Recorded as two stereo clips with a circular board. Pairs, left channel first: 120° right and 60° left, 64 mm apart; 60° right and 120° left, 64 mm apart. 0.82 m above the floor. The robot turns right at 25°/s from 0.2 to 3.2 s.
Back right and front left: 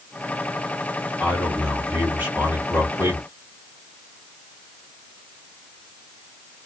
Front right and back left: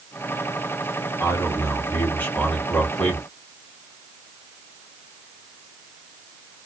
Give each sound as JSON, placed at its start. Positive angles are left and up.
{"t": 1.2, "sound": "a man speaking", "azimuth_deg": -30, "distance_m": 1.8}